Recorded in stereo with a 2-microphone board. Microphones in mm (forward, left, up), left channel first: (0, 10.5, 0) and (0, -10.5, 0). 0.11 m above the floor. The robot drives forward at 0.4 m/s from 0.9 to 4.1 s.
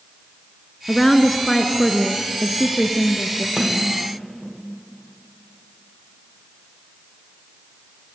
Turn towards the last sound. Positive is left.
turn(degrees=-30)  # may be behind; listen again after turning